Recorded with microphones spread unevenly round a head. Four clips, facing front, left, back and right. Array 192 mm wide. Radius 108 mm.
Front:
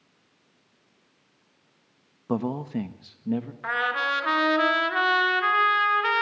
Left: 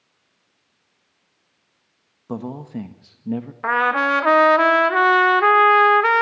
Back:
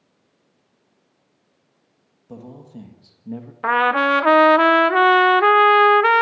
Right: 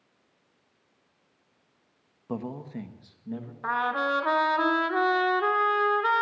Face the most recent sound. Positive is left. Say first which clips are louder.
# left 8 dB, back 11 dB
turn(degrees=155)